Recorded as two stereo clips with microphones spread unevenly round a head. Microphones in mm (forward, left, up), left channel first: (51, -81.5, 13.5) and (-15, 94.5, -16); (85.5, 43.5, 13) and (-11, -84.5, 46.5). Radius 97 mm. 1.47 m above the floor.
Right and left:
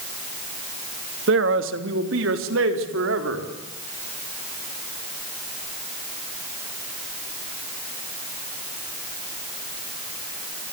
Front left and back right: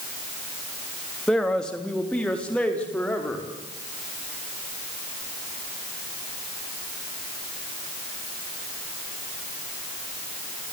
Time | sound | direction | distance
1.3 | a man speaking | 140° left | 2.5 m